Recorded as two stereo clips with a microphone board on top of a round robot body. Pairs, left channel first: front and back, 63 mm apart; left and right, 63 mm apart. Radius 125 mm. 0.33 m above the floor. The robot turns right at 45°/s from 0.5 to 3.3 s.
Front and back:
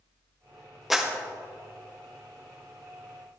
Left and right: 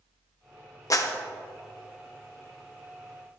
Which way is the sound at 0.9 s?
95° left.